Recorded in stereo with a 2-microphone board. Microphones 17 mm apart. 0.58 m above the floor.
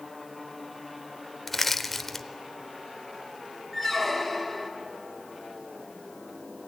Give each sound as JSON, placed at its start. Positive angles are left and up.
{"t": 1.5, "sound": "crushing", "side_deg": 10, "distance_m": 0.9}
{"t": 3.7, "sound": "a squeak", "side_deg": 5, "distance_m": 2.0}